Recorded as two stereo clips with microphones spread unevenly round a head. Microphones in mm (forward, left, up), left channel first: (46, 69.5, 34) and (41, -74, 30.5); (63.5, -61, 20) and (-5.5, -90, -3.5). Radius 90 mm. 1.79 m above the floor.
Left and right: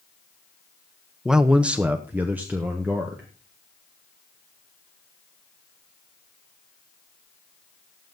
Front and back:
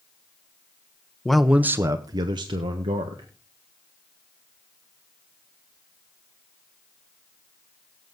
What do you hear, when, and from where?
1.2 s a man speaking: 5° right, 0.7 m; by 3.3 s 175° right, 1.5 m